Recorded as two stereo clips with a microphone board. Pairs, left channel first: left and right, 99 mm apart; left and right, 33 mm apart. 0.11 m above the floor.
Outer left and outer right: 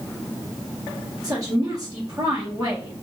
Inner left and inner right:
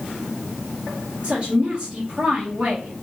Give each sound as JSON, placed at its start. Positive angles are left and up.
{"t": 1.2, "sound": "a woman speaking", "side_deg": -35, "distance_m": 2.0}